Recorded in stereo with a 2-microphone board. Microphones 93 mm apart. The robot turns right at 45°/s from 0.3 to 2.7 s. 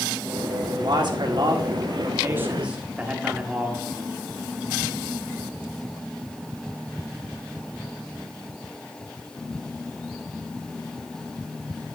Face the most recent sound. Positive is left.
turn(degrees=-15)